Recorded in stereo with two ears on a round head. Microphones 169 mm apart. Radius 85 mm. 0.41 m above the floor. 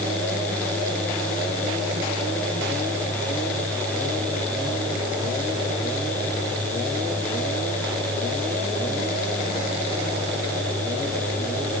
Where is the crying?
I don't hear crying.